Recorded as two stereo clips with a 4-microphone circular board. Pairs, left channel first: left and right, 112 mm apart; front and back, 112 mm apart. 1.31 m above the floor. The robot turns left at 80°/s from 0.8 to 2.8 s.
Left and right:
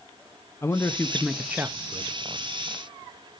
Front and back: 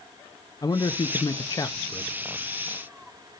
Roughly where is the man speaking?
Ahead left.